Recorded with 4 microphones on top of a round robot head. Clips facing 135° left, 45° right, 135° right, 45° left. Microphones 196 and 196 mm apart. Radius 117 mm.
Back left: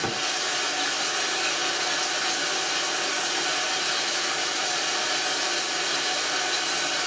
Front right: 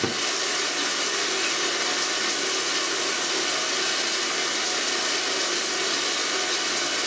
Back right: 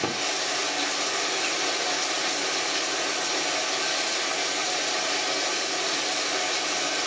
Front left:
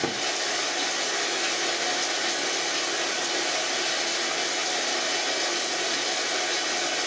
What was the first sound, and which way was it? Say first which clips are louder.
Running water: front right 3 dB, even; 40° right.